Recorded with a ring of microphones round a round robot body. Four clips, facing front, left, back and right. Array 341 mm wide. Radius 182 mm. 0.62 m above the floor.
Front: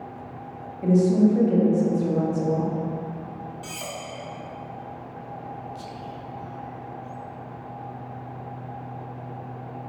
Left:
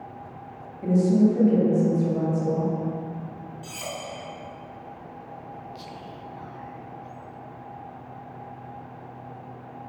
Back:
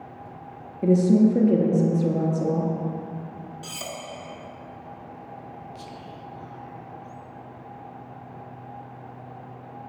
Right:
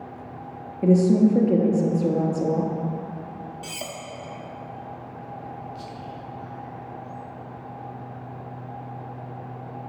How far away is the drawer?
I don't hear a drawer.